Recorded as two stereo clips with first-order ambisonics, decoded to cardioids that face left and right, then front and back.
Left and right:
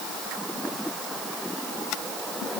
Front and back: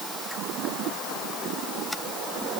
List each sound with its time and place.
Only background noise.